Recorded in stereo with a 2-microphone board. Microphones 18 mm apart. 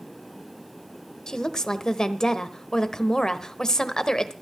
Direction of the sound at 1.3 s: 40° left (ahead or behind).